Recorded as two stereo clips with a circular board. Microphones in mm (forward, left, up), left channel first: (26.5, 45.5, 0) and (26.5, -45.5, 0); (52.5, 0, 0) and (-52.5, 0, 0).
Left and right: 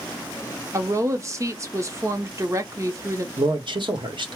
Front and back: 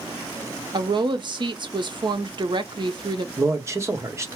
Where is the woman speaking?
145° right, 0.7 m.